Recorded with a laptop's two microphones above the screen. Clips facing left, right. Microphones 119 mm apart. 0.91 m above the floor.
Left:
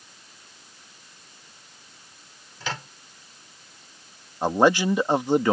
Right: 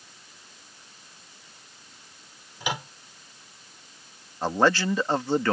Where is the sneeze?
I don't hear a sneeze.